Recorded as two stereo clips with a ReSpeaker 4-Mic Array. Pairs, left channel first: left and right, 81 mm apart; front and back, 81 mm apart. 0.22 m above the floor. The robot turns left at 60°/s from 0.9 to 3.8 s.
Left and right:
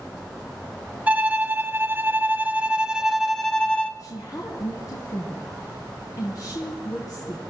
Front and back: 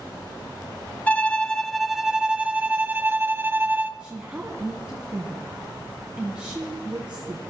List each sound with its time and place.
1.1 s a violin: 50° right, 1.0 m; by 3.9 s 145° left, 1.0 m
4.0 s a woman speaking: 105° left, 1.6 m